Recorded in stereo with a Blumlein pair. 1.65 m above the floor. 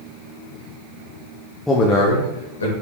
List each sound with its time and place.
1.7 s a man speaking: 5° left, 0.6 m; by 2.7 s 75° left, 1.3 m